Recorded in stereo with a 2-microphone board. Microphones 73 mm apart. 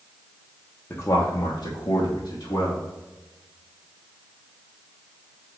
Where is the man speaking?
30° left (ahead or behind), 1.4 m; by 2.9 s 50° left (ahead or behind), 2.5 m.